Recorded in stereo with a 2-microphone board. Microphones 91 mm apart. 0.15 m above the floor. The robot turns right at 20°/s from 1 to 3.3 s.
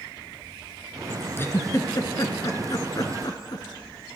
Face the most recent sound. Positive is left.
turn(degrees=45)  # may be behind; listen again after turning